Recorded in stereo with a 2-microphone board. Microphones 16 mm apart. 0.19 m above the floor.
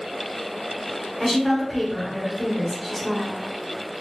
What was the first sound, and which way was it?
A woman speaking, 5° left (ahead or behind).